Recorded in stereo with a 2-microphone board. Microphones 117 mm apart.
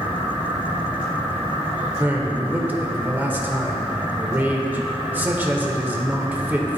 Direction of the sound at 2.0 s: 15° right (ahead or behind).